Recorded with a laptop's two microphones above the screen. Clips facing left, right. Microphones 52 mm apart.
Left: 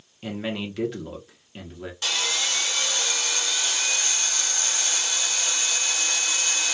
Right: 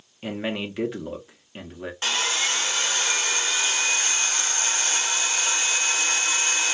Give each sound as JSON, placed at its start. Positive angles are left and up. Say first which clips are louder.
{"t": 0.2, "sound": "a man speaking", "louder": "right 1 dB", "side_deg": -20, "distance_m": 0.8}
{"t": 2.0, "sound": "sawing", "louder": "right 2 dB", "side_deg": -35, "distance_m": 0.8}